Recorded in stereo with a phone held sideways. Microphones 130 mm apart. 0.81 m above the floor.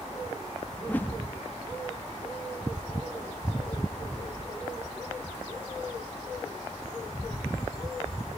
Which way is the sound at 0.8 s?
15° left (ahead or behind).